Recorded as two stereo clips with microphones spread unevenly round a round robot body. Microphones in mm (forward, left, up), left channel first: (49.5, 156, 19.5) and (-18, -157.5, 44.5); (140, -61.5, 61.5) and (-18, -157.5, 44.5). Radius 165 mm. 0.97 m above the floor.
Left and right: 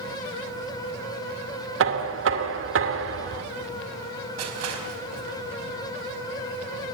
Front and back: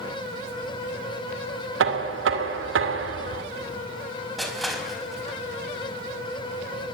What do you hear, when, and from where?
1.8 s knocking: 155° right, 2 m
4.4 s crushing: 60° right, 5 m